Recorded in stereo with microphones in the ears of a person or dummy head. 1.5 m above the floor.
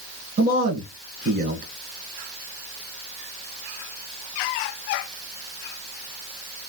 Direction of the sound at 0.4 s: 55° right (ahead or behind).